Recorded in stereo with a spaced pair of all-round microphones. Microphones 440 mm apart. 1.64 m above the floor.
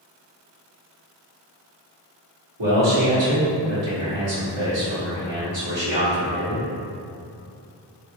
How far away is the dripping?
I don't hear dripping.